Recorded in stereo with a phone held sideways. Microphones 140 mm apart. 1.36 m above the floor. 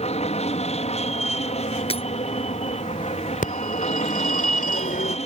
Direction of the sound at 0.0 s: 50° left (ahead or behind).